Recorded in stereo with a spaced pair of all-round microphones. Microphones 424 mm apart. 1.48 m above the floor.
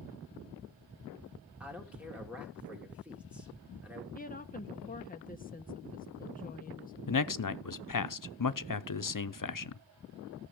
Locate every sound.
1.6 s a man speaking: 5° right (ahead or behind), 2.5 m
4.2 s a woman speaking: 20° left (ahead or behind), 0.6 m
7.1 s a man speaking: 45° left (ahead or behind), 0.6 m